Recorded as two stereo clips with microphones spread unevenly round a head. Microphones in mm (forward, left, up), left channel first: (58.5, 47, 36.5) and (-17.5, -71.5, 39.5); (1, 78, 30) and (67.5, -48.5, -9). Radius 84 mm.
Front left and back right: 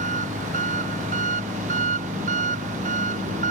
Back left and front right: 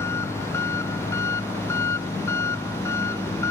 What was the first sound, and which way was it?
An engine running, 165° right.